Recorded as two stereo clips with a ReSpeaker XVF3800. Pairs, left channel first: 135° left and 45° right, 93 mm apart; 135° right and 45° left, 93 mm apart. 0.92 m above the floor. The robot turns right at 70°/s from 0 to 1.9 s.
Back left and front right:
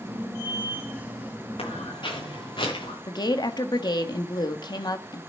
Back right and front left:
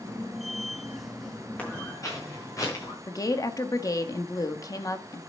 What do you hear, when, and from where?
1.6 s footsteps: 150° left, 8.5 m; by 3.0 s 170° left, 7 m
3.1 s a woman speaking: 175° left, 1.4 m